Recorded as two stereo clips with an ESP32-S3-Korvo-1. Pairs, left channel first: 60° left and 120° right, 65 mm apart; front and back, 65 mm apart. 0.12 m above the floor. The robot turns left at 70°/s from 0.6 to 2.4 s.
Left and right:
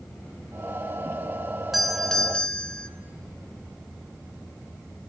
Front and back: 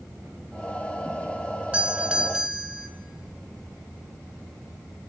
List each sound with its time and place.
1.7 s a doorbell: 155° left, 1.5 m; by 2.9 s 110° left, 1.5 m